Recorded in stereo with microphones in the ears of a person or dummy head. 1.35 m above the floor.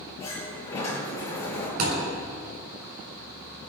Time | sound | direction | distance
0.2 | a sliding door | 25° left (ahead or behind) | 8 m
1.8 | a thud | 45° right (ahead or behind) | 7 m